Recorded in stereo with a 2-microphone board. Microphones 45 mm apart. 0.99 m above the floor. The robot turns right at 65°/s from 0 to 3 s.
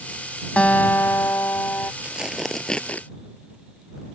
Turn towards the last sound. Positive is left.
turn(degrees=35)